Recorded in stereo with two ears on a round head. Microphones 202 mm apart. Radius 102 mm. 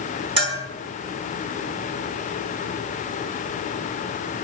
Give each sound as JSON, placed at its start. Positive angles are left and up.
{"t": 0.4, "sound": "a bell", "side_deg": -25, "distance_m": 7.5}